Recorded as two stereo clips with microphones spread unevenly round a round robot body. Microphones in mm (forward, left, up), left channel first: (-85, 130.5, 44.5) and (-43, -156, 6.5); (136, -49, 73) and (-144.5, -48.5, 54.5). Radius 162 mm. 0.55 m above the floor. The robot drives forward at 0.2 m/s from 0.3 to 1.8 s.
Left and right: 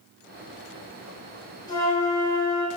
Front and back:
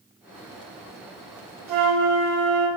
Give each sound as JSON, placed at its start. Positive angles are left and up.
{"t": 1.7, "sound": "a flute", "azimuth_deg": 180, "distance_m": 0.9}